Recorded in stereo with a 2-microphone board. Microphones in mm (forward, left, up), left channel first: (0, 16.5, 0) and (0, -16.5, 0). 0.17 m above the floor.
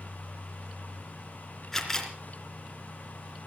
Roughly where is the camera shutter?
Centre.